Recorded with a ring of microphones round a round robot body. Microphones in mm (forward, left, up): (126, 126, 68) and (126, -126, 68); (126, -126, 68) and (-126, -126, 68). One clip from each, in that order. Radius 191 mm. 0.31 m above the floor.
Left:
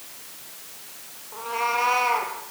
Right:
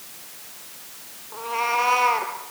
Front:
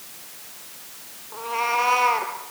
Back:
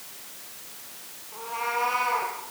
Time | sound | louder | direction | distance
1.3 | a cat meowing | right 2 dB, front 6 dB | 20° right | 4.5 m